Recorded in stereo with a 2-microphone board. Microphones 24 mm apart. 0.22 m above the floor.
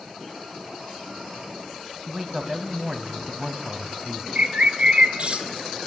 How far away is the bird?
About 1.6 m.